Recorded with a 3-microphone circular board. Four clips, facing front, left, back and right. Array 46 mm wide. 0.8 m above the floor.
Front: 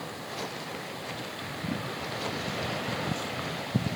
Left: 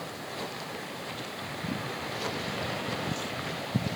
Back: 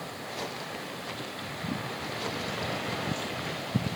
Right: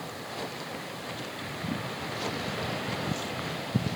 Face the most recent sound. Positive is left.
No sound to turn to.